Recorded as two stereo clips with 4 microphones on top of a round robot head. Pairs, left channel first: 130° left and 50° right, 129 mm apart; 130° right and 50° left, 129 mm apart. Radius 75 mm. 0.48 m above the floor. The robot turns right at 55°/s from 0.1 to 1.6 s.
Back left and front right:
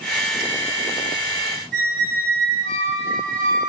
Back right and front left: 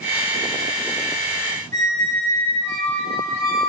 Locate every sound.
1.7 s a squeak: 60° right, 2.5 m